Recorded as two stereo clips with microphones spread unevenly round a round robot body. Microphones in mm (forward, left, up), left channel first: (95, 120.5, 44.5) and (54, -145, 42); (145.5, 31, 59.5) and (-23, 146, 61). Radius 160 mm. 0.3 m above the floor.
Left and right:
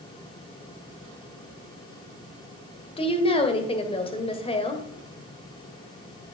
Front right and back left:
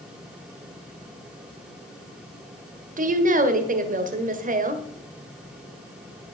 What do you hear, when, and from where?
3.0 s a woman speaking: 140° left, 1.5 m